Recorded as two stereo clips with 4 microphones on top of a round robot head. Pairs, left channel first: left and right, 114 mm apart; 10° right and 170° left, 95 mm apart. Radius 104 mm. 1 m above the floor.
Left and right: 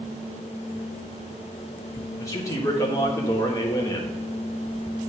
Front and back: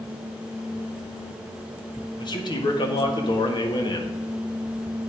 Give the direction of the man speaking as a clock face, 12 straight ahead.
11 o'clock.